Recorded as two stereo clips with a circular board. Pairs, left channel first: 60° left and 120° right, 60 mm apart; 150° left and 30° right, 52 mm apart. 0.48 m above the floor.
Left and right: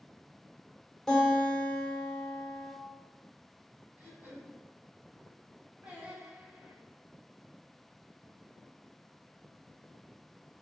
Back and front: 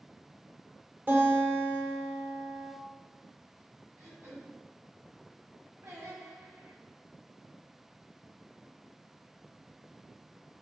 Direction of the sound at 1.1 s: 20° right.